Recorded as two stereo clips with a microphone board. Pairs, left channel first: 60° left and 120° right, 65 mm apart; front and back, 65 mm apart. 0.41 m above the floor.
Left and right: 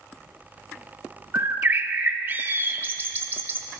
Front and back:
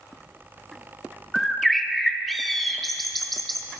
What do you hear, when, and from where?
1.3 s a bird: 90° right, 0.6 m